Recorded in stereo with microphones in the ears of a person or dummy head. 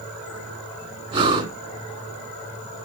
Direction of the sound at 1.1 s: 25° right (ahead or behind).